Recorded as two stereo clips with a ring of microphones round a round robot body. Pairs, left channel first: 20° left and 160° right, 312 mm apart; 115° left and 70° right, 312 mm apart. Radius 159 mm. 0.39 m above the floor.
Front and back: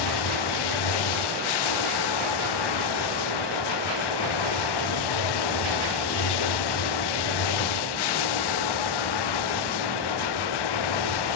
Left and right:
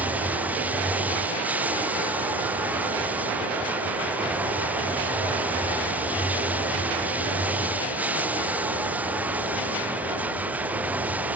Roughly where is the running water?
Ahead.